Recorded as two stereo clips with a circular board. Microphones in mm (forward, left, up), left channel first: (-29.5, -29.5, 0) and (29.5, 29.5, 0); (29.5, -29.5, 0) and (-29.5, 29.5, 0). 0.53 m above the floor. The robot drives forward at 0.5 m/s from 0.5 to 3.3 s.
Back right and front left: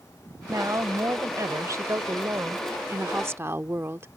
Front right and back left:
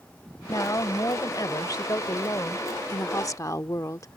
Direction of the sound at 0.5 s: Straight ahead.